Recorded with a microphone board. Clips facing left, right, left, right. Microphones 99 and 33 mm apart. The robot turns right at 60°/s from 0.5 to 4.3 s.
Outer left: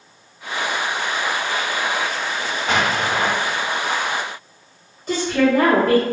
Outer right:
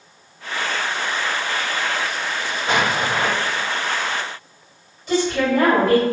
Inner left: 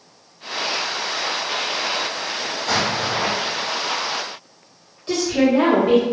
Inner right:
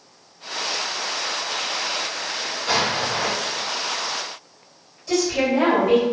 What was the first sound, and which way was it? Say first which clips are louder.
An explosion: even, even; 40° right.